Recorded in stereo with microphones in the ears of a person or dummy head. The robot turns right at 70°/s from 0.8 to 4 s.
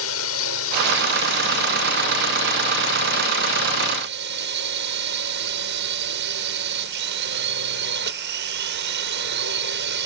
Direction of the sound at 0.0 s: 75° left.